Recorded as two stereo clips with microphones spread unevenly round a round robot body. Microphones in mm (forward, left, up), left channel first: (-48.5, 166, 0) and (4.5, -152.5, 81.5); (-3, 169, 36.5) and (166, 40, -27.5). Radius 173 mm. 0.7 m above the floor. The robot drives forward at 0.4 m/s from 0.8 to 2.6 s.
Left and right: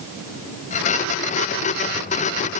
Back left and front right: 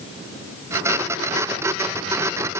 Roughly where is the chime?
I don't hear a chime.